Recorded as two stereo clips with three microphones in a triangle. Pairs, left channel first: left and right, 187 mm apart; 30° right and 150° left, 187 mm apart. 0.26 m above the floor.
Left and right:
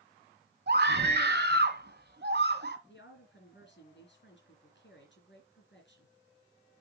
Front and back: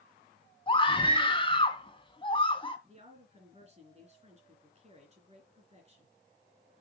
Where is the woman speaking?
95° left, 3 m.